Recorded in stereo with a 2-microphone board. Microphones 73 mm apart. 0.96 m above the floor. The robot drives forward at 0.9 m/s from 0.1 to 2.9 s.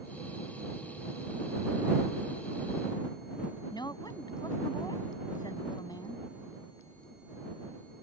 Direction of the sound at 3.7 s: 70° left (ahead or behind).